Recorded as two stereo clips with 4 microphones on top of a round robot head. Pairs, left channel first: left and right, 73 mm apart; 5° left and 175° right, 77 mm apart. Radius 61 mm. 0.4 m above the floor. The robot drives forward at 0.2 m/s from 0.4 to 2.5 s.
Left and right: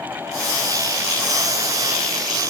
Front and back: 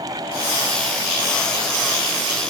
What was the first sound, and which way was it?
Only background noise.